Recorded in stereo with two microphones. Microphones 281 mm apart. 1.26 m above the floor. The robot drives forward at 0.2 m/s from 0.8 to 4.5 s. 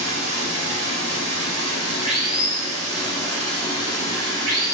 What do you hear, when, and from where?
0.0 s running water: 20° left (ahead or behind), 1.5 m; by 4.8 s 15° left (ahead or behind), 2 m